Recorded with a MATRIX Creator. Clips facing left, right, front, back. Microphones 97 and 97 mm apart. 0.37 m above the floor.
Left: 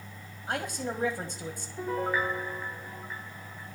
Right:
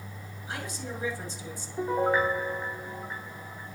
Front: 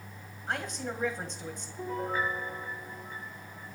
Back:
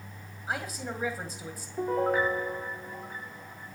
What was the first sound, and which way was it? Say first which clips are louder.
A man speaking: left 5 dB, even; 100° left.